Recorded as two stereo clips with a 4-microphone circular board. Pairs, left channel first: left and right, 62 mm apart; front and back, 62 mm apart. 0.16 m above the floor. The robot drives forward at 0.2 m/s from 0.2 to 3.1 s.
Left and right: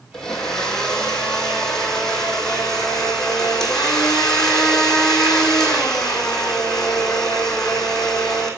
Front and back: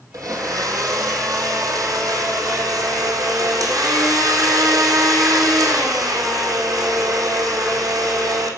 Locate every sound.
0.1 s a blender: 170° left, 2.5 m; by 8.5 s 175° left, 3 m